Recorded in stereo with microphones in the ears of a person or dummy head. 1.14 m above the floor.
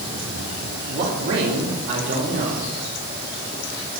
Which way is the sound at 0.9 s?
65° right (ahead or behind).